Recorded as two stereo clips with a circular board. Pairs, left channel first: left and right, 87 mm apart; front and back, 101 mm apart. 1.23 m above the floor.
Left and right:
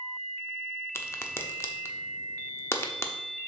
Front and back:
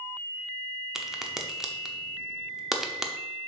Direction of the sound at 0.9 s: 100° left.